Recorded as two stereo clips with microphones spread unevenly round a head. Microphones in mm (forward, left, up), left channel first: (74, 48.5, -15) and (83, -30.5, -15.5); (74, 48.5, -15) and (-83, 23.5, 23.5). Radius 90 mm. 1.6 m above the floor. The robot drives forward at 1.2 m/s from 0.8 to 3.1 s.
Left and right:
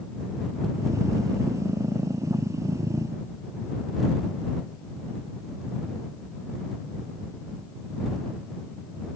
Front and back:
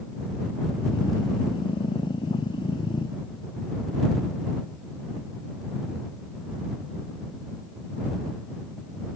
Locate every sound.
Only background noise.